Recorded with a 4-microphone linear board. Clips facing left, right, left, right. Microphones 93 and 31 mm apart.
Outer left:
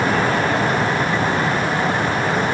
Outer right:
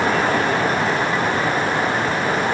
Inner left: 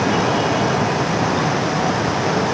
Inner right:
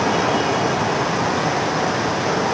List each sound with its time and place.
Only background noise.